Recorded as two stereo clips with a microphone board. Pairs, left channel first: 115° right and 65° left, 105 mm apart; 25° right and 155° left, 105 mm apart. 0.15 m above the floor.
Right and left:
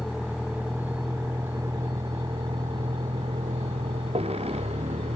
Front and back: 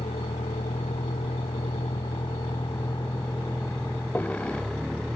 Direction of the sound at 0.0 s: 15° right.